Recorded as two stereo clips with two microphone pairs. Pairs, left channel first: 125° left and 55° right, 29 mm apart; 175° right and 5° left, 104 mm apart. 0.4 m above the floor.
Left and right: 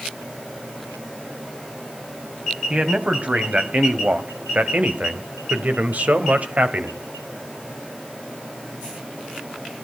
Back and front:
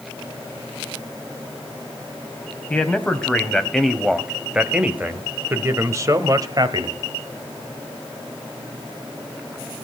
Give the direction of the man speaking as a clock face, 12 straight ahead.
3 o'clock.